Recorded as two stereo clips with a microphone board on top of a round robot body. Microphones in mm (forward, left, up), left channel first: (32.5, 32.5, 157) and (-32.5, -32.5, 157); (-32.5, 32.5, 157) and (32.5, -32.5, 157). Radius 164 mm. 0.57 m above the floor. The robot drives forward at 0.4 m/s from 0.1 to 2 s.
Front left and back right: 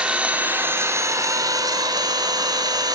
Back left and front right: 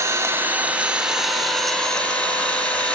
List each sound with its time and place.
0.0 s an engine running: 65° right, 0.9 m; by 3.0 s 150° right, 1.1 m